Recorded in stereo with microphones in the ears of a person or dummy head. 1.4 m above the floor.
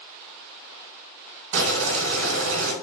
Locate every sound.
1.5 s boiling: 65° right (ahead or behind), 1.2 m